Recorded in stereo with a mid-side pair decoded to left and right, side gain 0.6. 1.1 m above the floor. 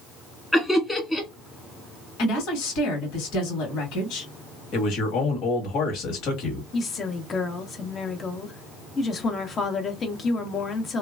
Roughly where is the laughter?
Ahead.